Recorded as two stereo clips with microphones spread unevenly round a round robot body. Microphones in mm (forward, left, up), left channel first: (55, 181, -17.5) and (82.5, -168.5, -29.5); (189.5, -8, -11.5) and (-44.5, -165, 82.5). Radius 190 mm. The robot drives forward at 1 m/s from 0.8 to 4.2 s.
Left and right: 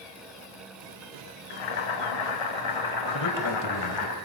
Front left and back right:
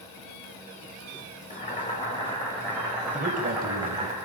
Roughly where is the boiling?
Left.